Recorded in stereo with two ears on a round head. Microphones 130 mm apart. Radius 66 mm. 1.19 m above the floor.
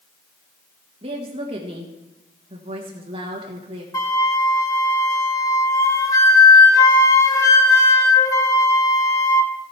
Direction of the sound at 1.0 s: 40° right (ahead or behind).